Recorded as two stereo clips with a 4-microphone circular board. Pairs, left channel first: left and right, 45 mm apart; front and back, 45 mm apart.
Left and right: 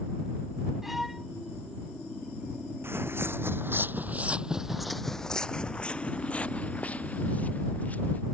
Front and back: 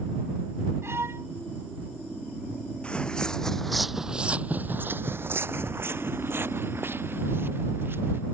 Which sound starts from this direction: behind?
A violin, at 0.8 s.